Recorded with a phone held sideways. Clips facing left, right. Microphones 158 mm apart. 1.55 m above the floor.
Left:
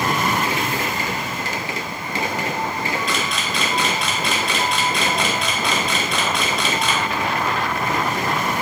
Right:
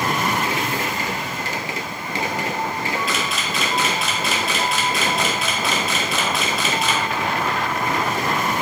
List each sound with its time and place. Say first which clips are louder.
3.1 s a camera shutter: even; 5° right (ahead or behind), 0.8 m